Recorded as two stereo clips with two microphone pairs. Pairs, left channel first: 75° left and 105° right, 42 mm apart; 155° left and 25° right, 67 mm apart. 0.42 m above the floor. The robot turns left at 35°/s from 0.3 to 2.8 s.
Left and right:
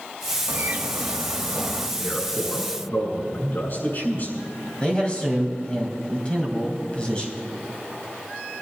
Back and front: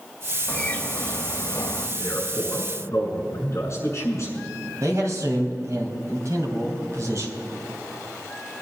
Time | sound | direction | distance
0.5 | a bird | 140° right | 1.1 m
2.0 | a man speaking | 135° left | 5.5 m
4.8 | a man speaking | 10° left | 3 m